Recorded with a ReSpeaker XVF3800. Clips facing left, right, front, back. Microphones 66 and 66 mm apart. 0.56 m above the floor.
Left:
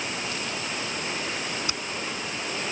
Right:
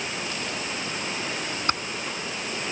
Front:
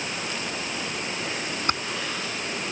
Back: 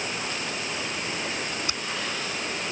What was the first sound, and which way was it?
Typing on a keyboard, 45° right.